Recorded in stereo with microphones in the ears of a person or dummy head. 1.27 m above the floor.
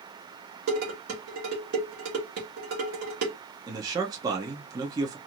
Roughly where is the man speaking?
Right.